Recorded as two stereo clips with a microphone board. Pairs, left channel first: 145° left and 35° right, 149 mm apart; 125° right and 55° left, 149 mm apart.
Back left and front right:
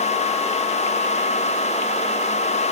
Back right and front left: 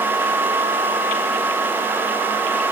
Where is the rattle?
I don't hear a rattle.